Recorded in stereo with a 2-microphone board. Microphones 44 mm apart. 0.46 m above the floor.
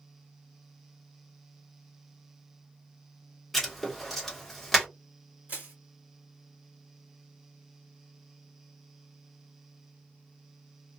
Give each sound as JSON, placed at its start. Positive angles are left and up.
{"t": 3.5, "sound": "writing", "side_deg": 0, "distance_m": 1.2}
{"t": 5.5, "sound": "crushing", "side_deg": -40, "distance_m": 1.2}